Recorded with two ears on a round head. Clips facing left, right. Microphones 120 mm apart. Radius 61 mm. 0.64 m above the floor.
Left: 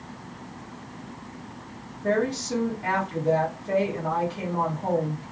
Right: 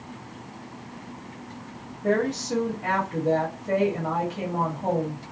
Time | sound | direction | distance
2.0 | a woman speaking | 15° right (ahead or behind) | 1.3 m